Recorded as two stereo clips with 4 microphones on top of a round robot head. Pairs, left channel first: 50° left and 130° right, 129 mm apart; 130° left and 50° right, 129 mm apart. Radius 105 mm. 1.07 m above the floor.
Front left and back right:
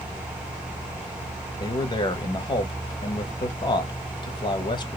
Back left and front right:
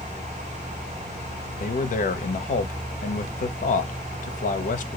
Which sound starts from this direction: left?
A man speaking, at 1.6 s.